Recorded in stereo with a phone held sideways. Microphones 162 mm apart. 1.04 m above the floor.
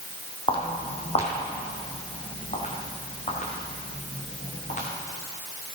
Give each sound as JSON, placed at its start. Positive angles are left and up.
{"t": 0.5, "sound": "footsteps", "side_deg": 35, "distance_m": 2.0}